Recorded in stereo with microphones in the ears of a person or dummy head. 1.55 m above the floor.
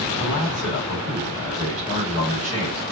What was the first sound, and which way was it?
A man speaking, 25° left (ahead or behind).